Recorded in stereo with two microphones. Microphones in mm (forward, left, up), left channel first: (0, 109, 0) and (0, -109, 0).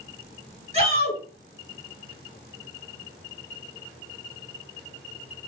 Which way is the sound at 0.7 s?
30° right (ahead or behind).